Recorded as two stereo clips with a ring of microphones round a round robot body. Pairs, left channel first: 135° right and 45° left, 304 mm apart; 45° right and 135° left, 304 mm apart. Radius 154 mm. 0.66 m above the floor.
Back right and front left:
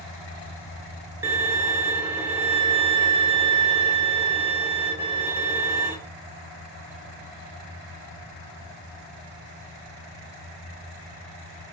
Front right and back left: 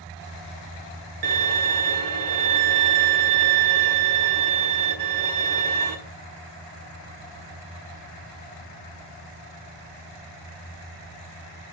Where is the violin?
130° left, 1.3 m.